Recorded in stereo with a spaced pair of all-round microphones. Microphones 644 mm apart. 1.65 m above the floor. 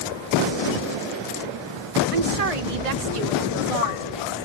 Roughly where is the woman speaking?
Right.